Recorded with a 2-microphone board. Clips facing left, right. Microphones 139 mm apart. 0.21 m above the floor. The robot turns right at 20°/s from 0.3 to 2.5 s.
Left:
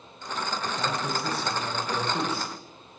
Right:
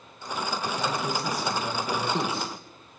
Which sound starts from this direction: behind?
A man speaking, at 0.8 s.